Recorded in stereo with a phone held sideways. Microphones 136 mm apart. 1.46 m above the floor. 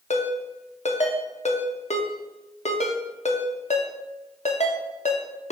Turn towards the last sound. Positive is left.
turn(degrees=55)  # may be behind; listen again after turning